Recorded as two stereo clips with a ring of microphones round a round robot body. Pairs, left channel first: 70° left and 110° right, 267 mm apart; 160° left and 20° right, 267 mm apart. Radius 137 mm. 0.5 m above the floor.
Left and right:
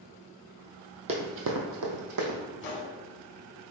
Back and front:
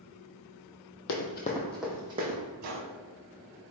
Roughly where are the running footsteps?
Behind.